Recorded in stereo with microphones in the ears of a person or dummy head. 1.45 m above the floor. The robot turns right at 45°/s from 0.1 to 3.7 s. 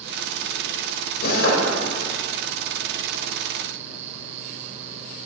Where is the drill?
65° left (ahead or behind), 3.5 m; by 1.6 s 80° left, 3.5 m.